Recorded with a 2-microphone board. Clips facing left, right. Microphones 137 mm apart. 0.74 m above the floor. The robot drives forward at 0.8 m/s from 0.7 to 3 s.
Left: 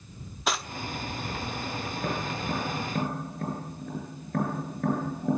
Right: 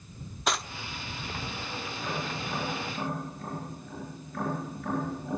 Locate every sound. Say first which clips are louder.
0.5 s cutlery clinking: even; centre (ahead or behind), 0.6 m
1.9 s tapping: left 2 dB; 55° left (ahead or behind), 9.5 m; by 5.4 s 60° left (ahead or behind), 9 m